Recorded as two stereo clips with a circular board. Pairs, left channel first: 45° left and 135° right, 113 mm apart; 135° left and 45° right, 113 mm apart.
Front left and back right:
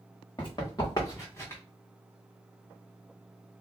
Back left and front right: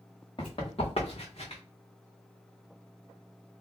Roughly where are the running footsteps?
Left.